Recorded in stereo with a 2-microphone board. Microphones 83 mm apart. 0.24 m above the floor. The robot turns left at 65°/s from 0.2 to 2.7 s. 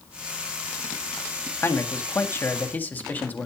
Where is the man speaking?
115° left, 1.7 m; by 3.5 s 45° left, 1.7 m.